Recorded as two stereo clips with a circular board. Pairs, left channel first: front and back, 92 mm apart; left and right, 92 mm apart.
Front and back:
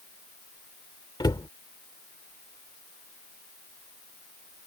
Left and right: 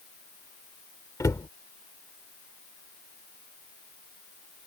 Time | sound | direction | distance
1.2 | a cupboard door | 40° left | ?